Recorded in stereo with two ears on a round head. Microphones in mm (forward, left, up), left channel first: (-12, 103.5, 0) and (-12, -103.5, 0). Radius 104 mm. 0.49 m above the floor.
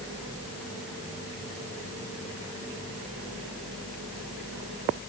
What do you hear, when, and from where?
Only background noise.